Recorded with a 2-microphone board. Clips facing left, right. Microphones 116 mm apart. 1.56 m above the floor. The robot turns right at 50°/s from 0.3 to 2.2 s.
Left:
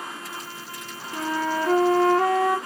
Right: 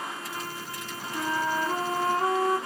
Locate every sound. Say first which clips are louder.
1.1 s a flute: left 3 dB; 45° left, 0.6 m; by 2.6 s 100° left, 0.6 m